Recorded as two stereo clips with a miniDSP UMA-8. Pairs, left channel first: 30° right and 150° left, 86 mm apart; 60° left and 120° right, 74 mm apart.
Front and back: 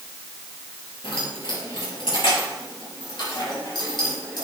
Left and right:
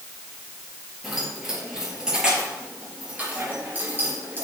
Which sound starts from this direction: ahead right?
Keys jangling, at 1.0 s.